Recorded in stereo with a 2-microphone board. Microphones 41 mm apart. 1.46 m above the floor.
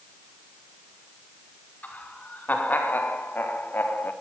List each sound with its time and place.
1.8 s laughter: 45° left (ahead or behind), 5 m; by 4.1 s 60° left (ahead or behind), 3.5 m